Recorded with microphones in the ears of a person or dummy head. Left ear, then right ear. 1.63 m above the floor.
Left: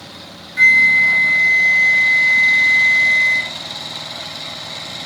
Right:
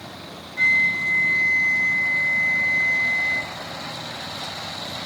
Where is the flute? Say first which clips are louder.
Left 8 dB; 35° left (ahead or behind), 0.5 m.